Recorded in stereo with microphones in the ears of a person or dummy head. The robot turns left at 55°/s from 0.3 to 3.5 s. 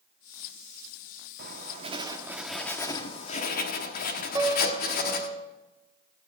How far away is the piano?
About 1.9 m.